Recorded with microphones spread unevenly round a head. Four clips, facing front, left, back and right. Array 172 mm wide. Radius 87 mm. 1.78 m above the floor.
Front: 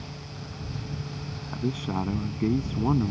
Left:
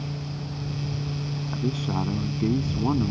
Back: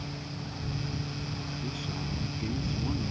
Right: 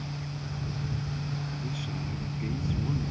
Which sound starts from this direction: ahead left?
A man speaking, at 1.5 s.